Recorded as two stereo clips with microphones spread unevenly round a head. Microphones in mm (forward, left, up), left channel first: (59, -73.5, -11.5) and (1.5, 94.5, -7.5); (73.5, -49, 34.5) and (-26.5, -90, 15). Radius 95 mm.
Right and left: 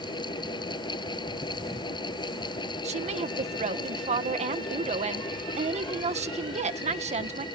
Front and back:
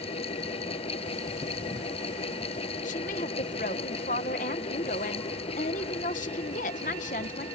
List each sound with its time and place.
0.0 s a fan: 5° right
2.8 s a woman speaking: 55° left